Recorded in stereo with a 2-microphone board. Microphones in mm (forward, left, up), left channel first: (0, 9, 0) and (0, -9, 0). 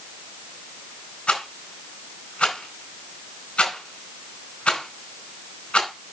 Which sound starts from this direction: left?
A rattle, at 1.3 s.